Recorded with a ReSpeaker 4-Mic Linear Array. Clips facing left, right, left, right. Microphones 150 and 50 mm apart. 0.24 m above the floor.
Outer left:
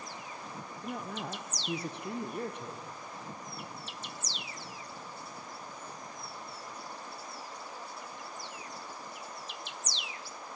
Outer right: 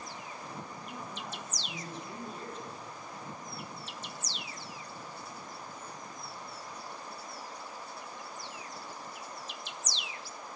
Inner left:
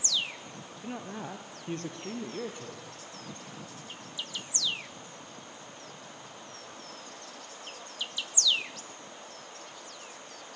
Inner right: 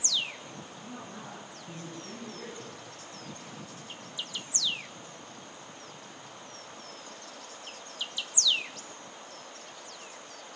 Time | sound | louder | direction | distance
0.8 | a woman speaking | outer left 4 dB, inner left 7 dB | 65° left (ahead or behind) | 4 m